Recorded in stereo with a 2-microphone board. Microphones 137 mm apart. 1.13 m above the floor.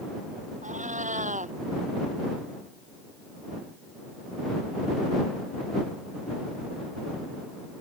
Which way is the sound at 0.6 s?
65° right (ahead or behind).